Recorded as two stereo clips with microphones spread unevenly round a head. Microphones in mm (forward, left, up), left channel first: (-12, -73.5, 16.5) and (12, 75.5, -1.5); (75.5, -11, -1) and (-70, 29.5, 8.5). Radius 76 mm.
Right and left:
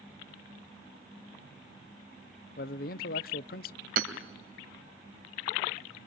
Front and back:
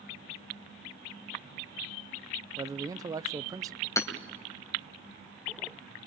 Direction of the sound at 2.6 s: 125° right.